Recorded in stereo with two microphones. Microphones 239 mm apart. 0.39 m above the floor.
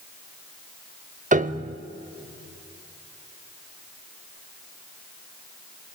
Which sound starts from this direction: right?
A piano, at 1.3 s.